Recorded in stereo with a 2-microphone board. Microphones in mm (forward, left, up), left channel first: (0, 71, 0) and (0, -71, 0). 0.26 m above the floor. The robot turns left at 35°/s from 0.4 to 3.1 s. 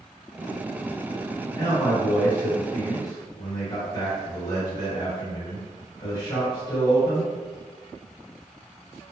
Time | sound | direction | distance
1.5 | a man speaking | 130° left | 1.8 m